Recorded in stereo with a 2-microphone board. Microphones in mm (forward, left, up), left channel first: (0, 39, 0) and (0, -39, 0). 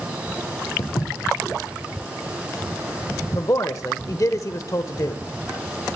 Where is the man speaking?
45° left (ahead or behind), 1.1 m.